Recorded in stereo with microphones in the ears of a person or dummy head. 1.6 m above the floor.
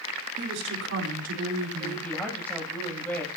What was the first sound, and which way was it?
A woman speaking, 60° right (ahead or behind).